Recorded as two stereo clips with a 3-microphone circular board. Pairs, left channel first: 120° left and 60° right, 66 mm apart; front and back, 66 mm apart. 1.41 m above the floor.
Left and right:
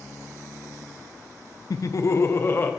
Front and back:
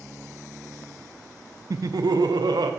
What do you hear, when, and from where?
1.7 s laughter: 145° left, 0.6 m; by 2.7 s straight behind, 1.1 m